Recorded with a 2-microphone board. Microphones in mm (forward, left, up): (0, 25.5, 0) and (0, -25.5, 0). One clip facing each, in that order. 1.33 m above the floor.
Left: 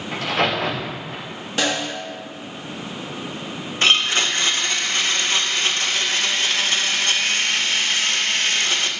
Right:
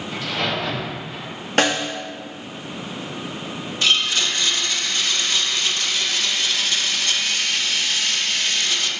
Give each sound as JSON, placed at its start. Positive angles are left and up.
{"t": 0.1, "sound": "a crack", "side_deg": 70, "distance_m": 2.5}
{"t": 1.6, "sound": "a snare drum", "side_deg": -55, "distance_m": 1.1}
{"t": 3.8, "sound": "a blender", "side_deg": 40, "distance_m": 0.6}